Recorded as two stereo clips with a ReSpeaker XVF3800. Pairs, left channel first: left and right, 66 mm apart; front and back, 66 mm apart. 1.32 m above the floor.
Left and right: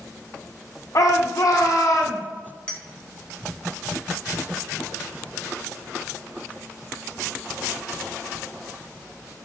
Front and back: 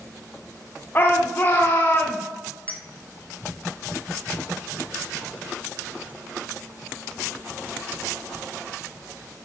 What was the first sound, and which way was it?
A shout, 55° left.